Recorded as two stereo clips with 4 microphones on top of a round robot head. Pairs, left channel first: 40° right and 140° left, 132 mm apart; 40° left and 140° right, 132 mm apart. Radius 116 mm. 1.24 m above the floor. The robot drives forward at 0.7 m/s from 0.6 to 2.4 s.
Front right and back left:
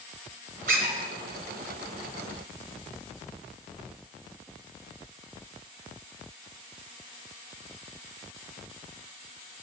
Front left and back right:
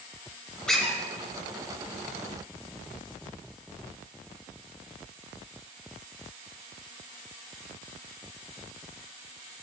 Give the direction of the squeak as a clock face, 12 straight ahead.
8 o'clock.